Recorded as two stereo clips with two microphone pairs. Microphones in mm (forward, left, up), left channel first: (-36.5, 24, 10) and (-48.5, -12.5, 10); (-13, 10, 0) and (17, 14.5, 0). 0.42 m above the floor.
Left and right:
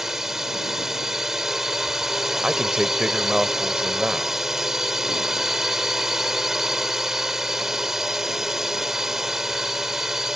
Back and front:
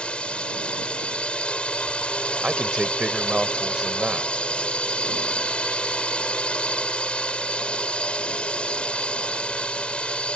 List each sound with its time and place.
0.0 s a drone: straight behind
2.4 s a man speaking: 45° right